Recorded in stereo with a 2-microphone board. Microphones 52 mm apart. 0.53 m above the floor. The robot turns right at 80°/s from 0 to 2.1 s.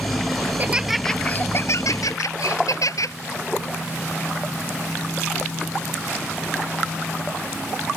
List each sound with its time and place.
0.5 s laughter: 40° right; by 3.1 s 90° left